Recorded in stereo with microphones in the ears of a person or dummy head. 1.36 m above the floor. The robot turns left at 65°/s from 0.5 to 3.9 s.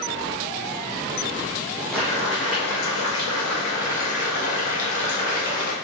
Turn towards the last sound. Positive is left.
turn(degrees=50)